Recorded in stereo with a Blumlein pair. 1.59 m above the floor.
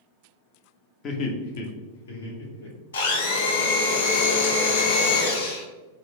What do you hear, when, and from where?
1.0 s laughter: 25° left, 0.7 m; by 2.8 s 75° left, 1.5 m
2.9 s a blender: 65° left, 0.8 m